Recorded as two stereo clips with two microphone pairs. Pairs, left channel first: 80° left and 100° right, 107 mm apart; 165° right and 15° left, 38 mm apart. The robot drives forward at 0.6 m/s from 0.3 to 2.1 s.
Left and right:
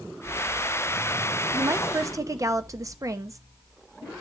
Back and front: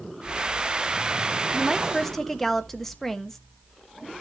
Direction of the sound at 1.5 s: 55° right.